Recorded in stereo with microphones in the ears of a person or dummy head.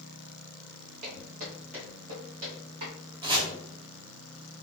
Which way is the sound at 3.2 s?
20° right (ahead or behind).